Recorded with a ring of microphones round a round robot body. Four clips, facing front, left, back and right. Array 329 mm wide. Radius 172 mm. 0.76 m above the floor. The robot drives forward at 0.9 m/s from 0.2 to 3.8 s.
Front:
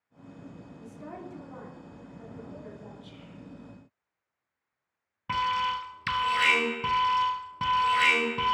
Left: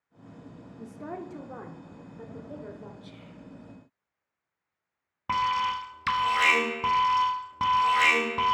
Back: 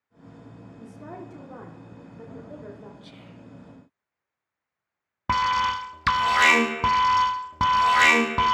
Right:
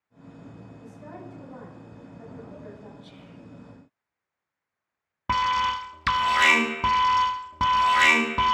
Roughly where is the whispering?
Behind.